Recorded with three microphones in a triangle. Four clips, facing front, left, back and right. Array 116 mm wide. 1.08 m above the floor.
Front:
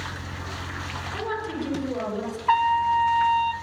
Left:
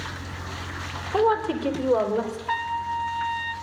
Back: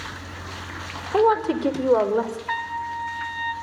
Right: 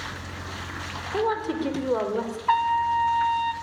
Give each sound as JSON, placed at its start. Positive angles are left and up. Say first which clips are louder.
{"t": 1.1, "sound": "a woman speaking", "louder": "left 4 dB, back 12 dB", "azimuth_deg": 165, "distance_m": 4.5}
{"t": 2.5, "sound": "a trumpet", "louder": "right 9 dB, front 8 dB", "azimuth_deg": -35, "distance_m": 1.5}